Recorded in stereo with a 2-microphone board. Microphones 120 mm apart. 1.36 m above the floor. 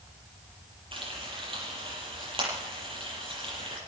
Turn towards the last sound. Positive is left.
turn(degrees=-50)  # may be behind; listen again after turning